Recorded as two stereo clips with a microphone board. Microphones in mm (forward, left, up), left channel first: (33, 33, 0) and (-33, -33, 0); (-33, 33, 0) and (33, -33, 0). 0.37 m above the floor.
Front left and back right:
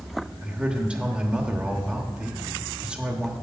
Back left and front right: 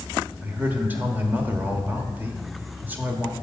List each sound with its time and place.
0.4 s a man speaking: 80° right, 1.0 m